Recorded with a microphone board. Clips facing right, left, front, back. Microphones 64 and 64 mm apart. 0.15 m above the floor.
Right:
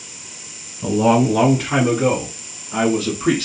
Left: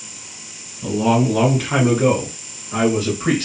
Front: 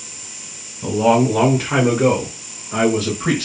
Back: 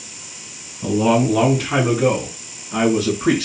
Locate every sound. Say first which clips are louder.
0.8 s a man speaking: right 2 dB, front 1 dB; 95° right, 1.2 m; by 3.5 s 50° left, 2 m